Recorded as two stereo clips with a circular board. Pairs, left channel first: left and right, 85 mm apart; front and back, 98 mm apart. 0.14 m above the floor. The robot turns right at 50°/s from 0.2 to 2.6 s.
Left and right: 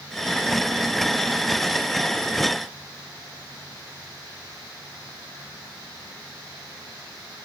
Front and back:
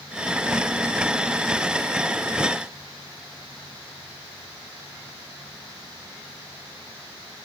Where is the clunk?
I don't hear a clunk.